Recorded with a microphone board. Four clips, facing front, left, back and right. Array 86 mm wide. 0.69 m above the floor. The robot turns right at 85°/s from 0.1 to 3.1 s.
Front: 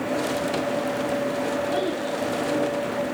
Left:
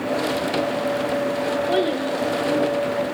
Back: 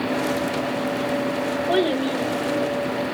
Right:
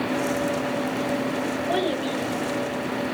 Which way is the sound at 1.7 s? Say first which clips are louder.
Left 3 dB, back 5 dB; 145° left.